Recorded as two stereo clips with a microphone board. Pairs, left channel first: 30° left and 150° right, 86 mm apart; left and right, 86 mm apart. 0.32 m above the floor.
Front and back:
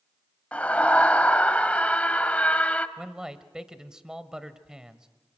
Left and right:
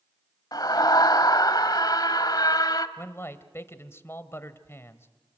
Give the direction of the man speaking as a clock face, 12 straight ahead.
8 o'clock.